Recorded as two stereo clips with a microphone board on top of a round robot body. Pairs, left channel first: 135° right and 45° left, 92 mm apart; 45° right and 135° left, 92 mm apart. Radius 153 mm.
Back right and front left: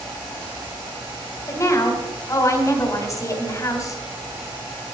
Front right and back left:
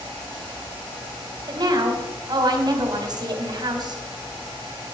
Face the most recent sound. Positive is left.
turn(degrees=175)